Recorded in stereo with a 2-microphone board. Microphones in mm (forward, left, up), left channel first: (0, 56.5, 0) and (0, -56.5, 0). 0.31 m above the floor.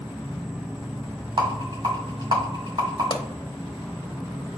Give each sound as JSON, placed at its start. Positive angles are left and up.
{"t": 0.0, "sound": "an insect", "side_deg": -10, "distance_m": 0.9}
{"t": 1.4, "sound": "a rattle", "side_deg": -45, "distance_m": 2.5}
{"t": 3.1, "sound": "a pop", "side_deg": 40, "distance_m": 0.9}